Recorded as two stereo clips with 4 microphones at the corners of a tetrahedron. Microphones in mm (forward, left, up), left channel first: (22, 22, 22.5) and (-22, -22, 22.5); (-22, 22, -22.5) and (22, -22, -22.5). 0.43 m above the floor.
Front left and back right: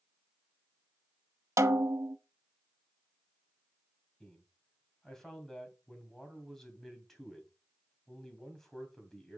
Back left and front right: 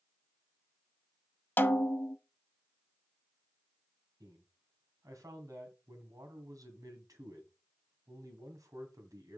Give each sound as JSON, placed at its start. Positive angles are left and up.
{"t": 1.6, "sound": "a snare drum", "azimuth_deg": -170, "distance_m": 0.7}
{"t": 4.2, "sound": "a man speaking", "azimuth_deg": -40, "distance_m": 2.5}